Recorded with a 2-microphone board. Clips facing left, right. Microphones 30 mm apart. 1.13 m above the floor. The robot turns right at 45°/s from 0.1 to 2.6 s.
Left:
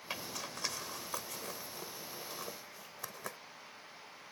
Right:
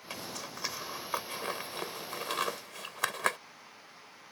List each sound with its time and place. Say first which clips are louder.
0.1 s a zipper: right 1 dB; 15° left (ahead or behind); by 3.4 s 80° right